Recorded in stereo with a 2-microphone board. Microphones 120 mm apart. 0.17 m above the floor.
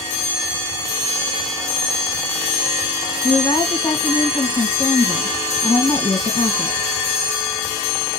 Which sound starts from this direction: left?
A woman speaking, at 3.2 s.